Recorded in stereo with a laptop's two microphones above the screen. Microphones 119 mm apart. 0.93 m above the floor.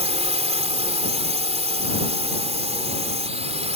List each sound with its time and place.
0.0 s a drone: 65° right (ahead or behind)